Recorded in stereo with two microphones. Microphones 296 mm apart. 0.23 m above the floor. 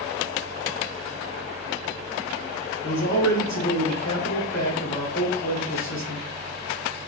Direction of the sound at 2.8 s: 65° left (ahead or behind).